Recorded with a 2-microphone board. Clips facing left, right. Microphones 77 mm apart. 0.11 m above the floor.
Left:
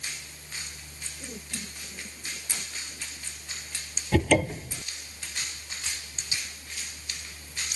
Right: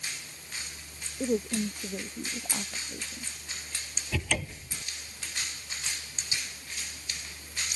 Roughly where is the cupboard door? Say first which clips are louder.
Left 11 dB; left.